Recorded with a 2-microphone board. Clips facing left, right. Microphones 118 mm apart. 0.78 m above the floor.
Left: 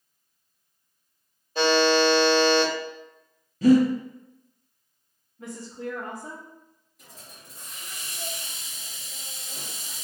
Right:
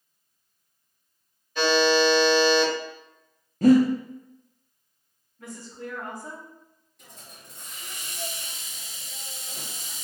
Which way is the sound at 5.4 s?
25° left (ahead or behind).